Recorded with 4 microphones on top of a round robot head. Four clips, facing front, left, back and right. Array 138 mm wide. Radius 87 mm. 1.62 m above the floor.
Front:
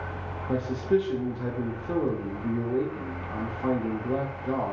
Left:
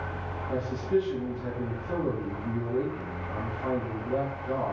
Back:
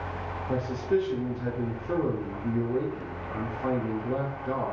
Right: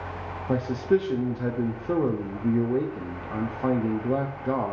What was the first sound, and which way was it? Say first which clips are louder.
A man speaking: right 4 dB, front 2 dB; 80° right.